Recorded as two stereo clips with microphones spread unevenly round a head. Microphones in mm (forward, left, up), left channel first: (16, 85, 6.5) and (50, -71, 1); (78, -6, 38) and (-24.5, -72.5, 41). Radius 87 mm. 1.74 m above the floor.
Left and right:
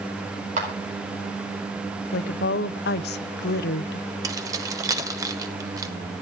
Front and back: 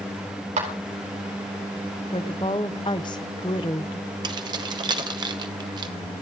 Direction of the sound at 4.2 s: 135° right.